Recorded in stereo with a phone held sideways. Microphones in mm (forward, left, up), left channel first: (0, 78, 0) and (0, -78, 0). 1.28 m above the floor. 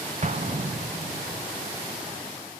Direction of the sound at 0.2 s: 50° right (ahead or behind).